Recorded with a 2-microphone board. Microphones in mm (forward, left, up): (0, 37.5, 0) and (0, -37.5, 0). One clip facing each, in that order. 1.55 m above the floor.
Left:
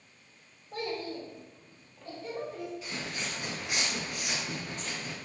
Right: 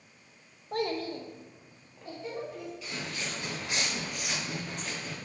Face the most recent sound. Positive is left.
turn(degrees=-20)  # may be behind; listen again after turning